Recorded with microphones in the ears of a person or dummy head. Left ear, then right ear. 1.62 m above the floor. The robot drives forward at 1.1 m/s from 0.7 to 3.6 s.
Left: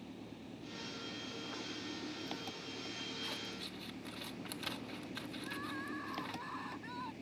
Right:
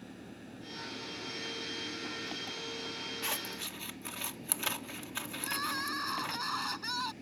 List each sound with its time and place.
0.0 s an engine running: 5° left (ahead or behind)
3.2 s scissors: 35° right (ahead or behind); by 6.4 s 30° right (ahead or behind)
5.4 s crying: 60° right (ahead or behind)